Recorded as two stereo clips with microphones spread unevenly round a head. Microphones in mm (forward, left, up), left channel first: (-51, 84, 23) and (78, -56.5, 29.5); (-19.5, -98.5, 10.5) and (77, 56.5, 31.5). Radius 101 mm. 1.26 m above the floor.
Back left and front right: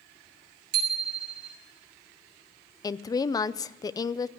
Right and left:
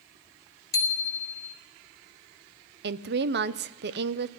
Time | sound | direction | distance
0.7 | a bicycle bell | 50° right | 2.5 m
2.8 | a woman speaking | 65° left | 0.6 m